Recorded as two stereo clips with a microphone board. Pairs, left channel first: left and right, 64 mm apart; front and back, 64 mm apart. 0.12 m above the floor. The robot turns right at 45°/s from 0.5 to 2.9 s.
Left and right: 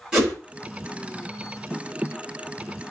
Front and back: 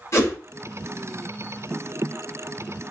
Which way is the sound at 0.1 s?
20° right.